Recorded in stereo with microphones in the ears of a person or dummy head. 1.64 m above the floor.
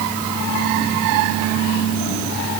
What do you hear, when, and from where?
Only background noise.